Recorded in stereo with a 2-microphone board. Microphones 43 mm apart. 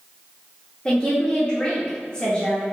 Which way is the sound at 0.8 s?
20° left (ahead or behind).